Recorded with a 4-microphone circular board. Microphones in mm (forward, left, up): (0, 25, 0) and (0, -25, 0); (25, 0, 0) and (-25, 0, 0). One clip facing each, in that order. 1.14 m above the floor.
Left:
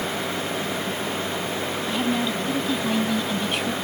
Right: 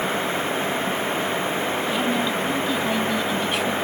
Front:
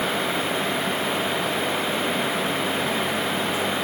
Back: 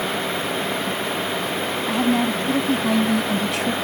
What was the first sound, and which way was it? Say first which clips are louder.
A woman speaking: left 1 dB, back 4 dB; 175° right.